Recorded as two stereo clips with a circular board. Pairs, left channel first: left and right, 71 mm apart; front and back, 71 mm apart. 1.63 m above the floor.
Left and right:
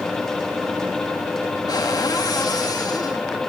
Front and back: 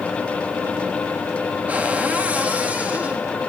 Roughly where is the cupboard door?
Left.